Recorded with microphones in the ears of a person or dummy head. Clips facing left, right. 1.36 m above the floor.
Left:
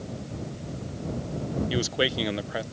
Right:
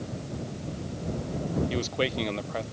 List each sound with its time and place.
1.7 s a man speaking: 15° left (ahead or behind)